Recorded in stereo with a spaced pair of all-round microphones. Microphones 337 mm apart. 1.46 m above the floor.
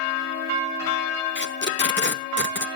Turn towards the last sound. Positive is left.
turn(degrees=35)  # may be behind; listen again after turning